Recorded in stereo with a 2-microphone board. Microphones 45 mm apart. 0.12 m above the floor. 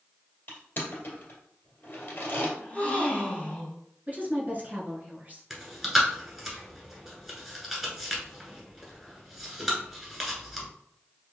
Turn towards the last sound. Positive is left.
turn(degrees=0)  # may be behind; listen again after turning